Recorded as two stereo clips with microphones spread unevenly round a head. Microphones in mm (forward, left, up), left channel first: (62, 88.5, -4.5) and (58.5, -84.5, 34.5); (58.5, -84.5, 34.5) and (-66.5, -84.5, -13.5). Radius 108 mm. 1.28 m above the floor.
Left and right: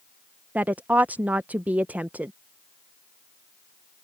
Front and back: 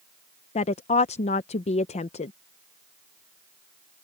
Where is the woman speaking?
15° right.